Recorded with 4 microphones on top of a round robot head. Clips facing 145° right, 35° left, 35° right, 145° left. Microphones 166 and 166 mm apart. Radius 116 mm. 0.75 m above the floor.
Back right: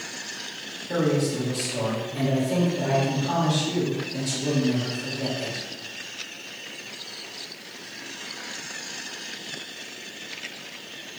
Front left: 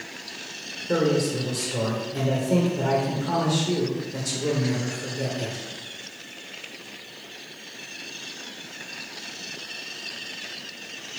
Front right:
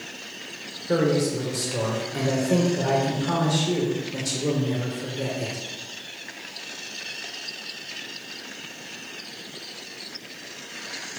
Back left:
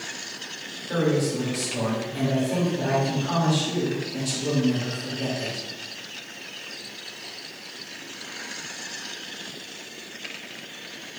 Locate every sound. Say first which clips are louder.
0.9 s a man speaking: front left 1 dB, front right 2 dB; straight ahead, 3.5 m